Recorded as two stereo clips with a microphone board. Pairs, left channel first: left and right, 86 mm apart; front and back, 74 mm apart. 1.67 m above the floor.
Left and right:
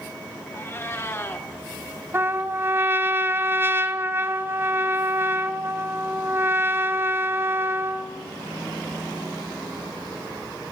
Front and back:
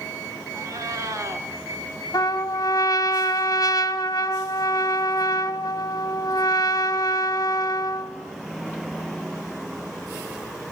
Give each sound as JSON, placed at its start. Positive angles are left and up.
{"t": 0.5, "sound": "a cat meowing", "azimuth_deg": 145, "distance_m": 3.0}
{"t": 2.1, "sound": "a trumpet", "azimuth_deg": -30, "distance_m": 1.5}